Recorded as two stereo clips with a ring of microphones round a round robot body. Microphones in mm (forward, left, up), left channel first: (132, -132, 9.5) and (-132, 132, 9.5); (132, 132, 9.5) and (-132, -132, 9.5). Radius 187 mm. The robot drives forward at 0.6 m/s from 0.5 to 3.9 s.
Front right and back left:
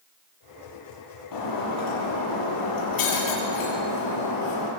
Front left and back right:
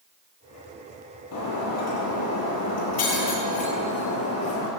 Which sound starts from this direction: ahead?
Breaking glass, at 1.3 s.